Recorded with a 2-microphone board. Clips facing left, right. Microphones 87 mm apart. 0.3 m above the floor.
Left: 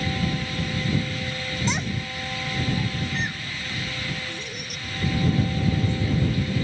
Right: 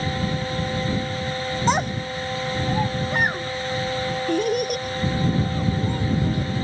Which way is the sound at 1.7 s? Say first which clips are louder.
Right 9 dB; 50° right (ahead or behind).